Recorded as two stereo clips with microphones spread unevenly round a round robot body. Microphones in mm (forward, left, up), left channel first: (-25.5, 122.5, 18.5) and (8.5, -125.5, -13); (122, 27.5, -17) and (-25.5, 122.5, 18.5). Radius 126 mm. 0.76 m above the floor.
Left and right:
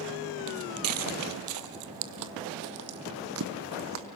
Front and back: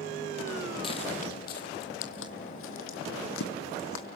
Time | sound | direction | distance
0.5 | footsteps | 120° right | 1.1 m